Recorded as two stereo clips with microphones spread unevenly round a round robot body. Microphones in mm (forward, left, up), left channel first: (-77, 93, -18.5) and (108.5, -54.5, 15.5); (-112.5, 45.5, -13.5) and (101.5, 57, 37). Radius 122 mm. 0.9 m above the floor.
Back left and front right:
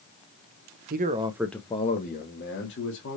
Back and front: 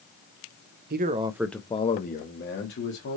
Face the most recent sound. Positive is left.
turn(degrees=175)